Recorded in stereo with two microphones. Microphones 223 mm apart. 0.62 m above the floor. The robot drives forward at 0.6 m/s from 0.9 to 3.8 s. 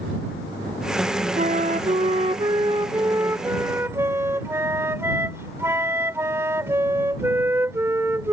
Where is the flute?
30° right (ahead or behind); by 8.3 s 10° right (ahead or behind).